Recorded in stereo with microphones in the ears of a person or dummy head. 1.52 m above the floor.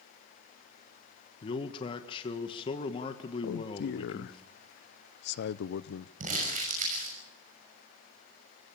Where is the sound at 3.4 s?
65° left (ahead or behind), 0.7 m.